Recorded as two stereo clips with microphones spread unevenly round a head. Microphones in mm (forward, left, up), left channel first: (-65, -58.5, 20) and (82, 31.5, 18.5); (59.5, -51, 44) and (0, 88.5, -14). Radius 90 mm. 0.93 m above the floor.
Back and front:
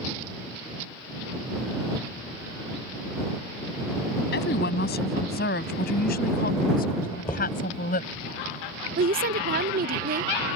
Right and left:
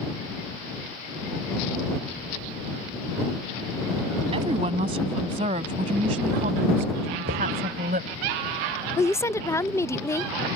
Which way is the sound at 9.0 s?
20° left.